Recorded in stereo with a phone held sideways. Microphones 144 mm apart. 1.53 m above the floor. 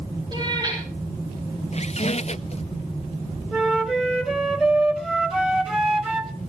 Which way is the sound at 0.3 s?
30° right (ahead or behind).